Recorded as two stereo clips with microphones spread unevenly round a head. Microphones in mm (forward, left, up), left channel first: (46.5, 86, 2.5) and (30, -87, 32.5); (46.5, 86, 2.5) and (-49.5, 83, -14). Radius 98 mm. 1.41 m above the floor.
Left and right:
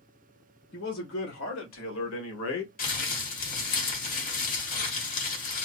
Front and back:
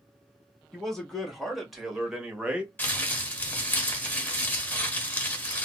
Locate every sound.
0.7 s a man speaking: 85° left, 2.5 m; by 2.7 s 100° left, 1.5 m
2.8 s crumpling: 55° left, 1.5 m